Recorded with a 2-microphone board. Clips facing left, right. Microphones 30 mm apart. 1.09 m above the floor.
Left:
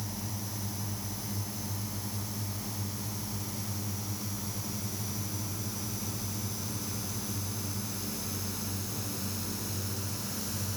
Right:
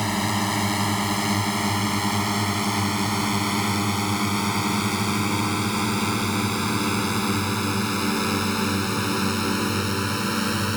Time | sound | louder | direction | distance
0.0 | a drone | right 16 dB | 80° right | ?